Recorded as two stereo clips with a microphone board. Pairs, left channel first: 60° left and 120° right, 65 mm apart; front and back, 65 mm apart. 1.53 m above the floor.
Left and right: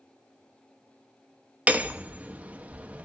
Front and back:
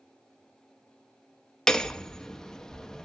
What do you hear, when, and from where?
1.7 s hammering: 75° right, 0.9 m